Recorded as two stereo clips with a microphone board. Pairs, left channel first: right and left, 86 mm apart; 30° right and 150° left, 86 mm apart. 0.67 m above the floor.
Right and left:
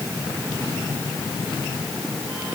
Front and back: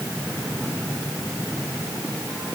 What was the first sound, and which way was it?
Only background noise.